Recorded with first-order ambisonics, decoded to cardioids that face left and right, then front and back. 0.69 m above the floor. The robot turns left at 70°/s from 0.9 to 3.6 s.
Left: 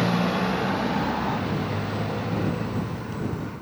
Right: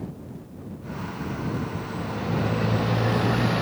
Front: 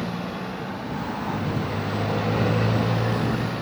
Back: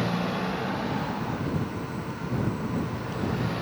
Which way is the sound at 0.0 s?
100° left.